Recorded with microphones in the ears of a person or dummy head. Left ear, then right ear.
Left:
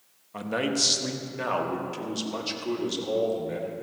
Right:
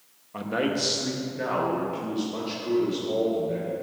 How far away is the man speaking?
About 1.1 m.